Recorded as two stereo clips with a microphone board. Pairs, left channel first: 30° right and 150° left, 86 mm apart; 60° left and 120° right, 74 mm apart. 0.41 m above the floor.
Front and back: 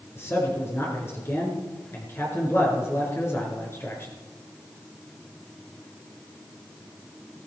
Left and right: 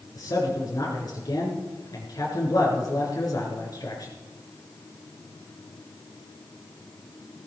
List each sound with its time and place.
0.1 s a man speaking: 30° left, 6 m